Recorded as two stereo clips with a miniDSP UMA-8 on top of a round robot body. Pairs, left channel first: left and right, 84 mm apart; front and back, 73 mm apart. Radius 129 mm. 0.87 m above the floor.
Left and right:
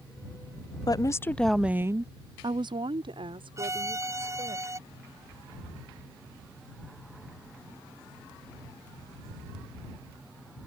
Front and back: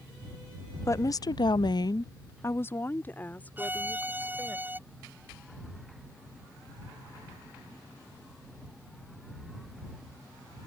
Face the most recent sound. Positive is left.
turn(degrees=-125)